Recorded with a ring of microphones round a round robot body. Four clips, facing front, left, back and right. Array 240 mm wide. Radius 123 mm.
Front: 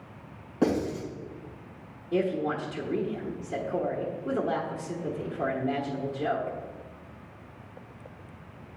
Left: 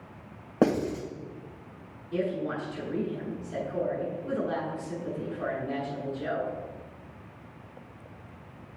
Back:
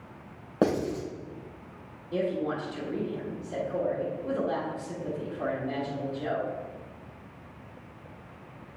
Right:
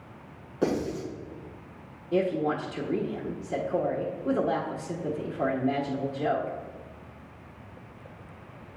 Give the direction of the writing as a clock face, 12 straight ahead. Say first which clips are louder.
Left 3 dB, even; 8 o'clock.